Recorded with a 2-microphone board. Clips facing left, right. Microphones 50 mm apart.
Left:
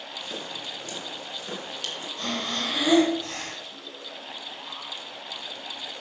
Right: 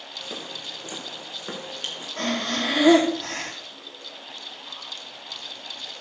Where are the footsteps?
15° right (ahead or behind), 5 m; by 2.1 s 30° right (ahead or behind), 5 m.